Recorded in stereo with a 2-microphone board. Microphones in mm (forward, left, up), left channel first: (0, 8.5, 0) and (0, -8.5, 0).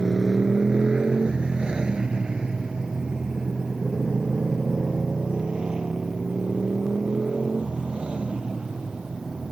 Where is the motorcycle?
55° right (ahead or behind); by 9.5 s 80° right.